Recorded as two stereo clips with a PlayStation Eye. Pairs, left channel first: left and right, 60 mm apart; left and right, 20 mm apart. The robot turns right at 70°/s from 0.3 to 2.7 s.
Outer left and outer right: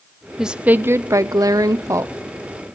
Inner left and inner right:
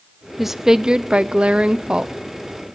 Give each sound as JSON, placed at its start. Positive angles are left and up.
{"t": 0.4, "sound": "a woman speaking", "azimuth_deg": -175, "distance_m": 0.7}